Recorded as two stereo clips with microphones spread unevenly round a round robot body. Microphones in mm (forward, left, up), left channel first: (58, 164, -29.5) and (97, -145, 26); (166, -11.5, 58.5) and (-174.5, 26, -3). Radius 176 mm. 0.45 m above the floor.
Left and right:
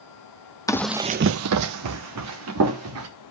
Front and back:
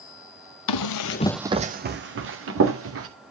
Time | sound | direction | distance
0.7 | running footsteps | 15° left | 0.9 m